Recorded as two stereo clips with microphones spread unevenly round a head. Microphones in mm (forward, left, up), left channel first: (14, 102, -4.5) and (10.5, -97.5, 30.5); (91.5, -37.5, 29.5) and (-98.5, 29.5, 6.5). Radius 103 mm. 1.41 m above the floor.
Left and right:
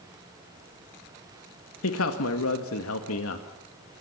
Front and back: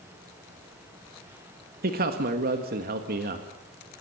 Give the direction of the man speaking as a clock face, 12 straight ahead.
8 o'clock.